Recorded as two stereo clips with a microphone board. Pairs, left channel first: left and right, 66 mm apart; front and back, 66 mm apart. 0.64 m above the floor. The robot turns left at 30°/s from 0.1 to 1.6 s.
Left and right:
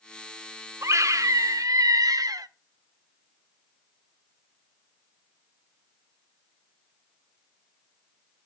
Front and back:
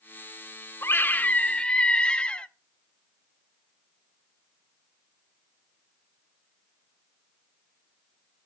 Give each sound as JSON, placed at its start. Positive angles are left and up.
{"t": 0.8, "sound": "a scream", "azimuth_deg": -50, "distance_m": 1.3}